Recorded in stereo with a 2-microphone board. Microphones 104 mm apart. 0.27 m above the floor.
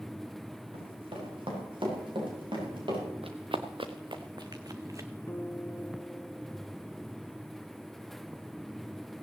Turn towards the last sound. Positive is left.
turn(degrees=25)  # may be behind; listen again after turning